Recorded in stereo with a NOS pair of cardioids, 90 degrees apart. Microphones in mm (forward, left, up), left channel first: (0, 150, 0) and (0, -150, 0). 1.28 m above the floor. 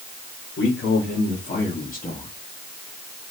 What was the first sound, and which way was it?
A man speaking, 45° left.